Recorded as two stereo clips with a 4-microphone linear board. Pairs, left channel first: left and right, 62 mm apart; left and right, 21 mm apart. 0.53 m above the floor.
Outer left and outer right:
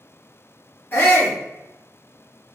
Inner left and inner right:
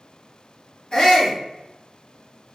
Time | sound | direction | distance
0.9 | a shout | 40° left (ahead or behind) | 1.4 m